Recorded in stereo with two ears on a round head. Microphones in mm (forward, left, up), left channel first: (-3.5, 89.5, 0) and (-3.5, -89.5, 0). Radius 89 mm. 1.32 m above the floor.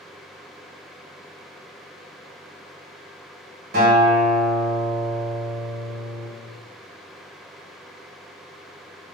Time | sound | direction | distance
3.7 | a guitar | 50° right (ahead or behind) | 1.4 m